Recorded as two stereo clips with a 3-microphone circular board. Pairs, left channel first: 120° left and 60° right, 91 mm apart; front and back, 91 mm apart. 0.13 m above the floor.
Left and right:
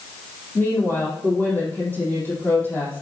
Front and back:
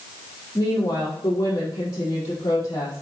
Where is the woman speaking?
50° left, 5 m.